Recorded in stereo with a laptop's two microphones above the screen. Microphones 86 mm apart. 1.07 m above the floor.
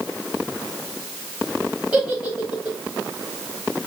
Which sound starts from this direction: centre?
A giggle, at 1.9 s.